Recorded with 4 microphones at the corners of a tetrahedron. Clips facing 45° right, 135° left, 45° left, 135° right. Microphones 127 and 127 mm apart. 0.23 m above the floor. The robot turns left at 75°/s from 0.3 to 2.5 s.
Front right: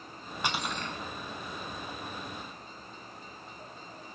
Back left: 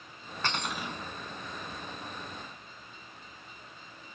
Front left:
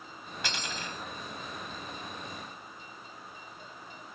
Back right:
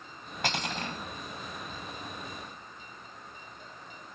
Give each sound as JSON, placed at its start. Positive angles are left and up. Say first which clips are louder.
{"t": 0.4, "sound": "cutlery clinking", "louder": "even, back right 5 dB", "azimuth_deg": -120, "distance_m": 0.8}